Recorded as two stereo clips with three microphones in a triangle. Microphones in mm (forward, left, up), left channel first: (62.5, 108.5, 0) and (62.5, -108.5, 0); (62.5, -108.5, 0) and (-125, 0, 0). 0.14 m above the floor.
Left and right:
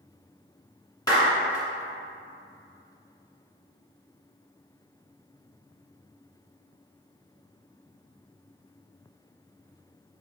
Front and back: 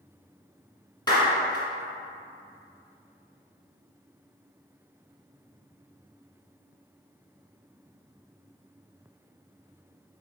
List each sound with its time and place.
1.1 s a clap: 25° left, 1.2 m